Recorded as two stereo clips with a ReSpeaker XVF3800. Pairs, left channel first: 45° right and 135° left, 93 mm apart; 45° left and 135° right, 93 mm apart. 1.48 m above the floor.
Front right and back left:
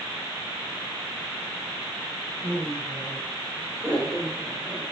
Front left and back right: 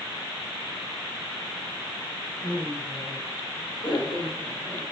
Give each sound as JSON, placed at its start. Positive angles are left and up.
{"t": 2.4, "sound": "laughter", "azimuth_deg": 85, "distance_m": 5.0}